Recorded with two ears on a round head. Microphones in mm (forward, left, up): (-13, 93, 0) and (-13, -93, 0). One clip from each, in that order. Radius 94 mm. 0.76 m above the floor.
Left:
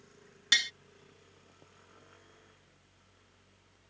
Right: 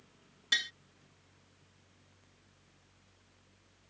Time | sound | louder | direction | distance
0.5 | tapping | left 4 dB | 30° left (ahead or behind) | ?